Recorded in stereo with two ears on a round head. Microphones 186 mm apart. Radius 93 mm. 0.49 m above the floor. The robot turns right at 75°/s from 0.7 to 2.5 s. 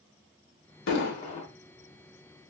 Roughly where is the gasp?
No gasp in this recording.